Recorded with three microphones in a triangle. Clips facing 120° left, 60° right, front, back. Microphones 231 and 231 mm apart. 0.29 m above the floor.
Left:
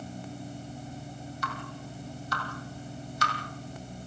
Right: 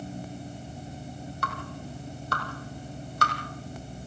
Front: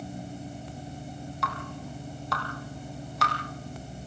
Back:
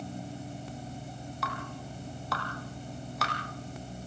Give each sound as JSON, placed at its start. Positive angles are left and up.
{"t": 1.4, "sound": "dripping", "azimuth_deg": -90, "distance_m": 3.5}